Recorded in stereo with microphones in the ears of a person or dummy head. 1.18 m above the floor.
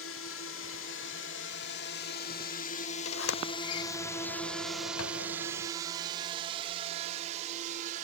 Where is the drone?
65° left (ahead or behind); by 8.0 s 40° right (ahead or behind).